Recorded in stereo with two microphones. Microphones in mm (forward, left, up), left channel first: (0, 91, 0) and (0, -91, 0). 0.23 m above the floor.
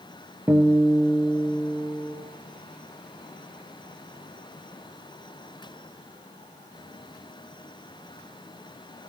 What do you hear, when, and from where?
0.5 s a guitar: 15° right (ahead or behind), 3 m